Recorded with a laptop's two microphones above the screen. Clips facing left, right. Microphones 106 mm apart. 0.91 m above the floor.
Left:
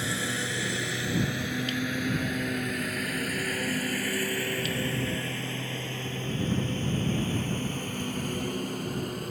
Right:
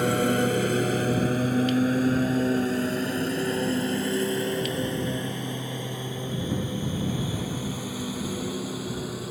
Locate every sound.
0.0 s a lawn mower: 55° right (ahead or behind); by 9.3 s 5° right (ahead or behind)